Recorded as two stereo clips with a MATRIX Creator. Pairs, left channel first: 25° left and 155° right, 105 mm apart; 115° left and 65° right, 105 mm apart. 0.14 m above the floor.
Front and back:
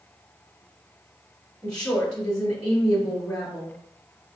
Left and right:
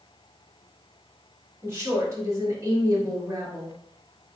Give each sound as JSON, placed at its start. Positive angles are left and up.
{"t": 1.6, "sound": "a woman speaking", "azimuth_deg": -50, "distance_m": 1.7}